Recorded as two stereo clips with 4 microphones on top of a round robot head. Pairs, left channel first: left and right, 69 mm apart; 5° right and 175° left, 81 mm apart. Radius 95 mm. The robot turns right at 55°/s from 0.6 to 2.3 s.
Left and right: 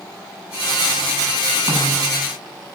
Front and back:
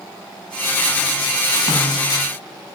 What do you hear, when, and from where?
1.7 s a snare drum: 40° right, 6.5 m; by 2.1 s 15° right, 6.5 m